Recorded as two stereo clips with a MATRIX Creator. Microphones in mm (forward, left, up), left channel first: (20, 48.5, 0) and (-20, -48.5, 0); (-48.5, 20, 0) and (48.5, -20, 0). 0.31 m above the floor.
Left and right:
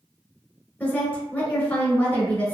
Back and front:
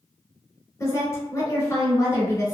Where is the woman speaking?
130° left, 1.0 m.